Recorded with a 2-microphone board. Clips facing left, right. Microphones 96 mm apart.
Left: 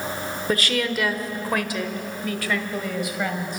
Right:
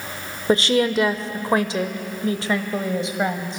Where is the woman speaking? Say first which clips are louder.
Right 7 dB; 25° right (ahead or behind), 1.1 m.